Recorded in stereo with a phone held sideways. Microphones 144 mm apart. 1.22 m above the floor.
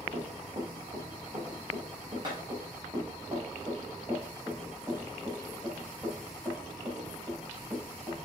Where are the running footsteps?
50° right (ahead or behind), 3.5 m; by 8.2 s 5° right (ahead or behind), 6.5 m.